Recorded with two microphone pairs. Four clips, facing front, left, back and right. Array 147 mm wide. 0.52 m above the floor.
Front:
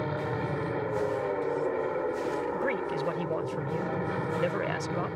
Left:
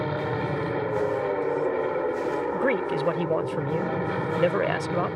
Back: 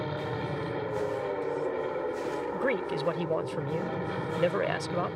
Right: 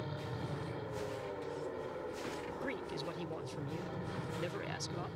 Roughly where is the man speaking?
Left.